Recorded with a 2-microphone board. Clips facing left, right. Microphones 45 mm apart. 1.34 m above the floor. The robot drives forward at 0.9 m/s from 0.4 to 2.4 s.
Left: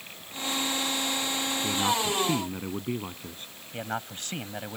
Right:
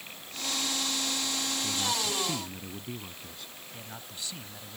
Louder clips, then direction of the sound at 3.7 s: Left 13 dB; 50° left (ahead or behind).